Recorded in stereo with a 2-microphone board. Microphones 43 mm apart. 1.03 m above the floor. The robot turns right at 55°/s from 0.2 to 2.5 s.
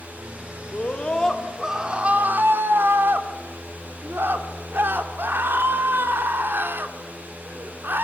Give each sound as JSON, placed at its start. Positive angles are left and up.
{"t": 0.7, "sound": "a scream", "azimuth_deg": 140, "distance_m": 3.5}